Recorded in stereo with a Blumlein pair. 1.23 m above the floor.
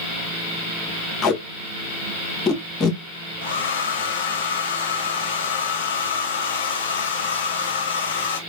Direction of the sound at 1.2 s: 25° left.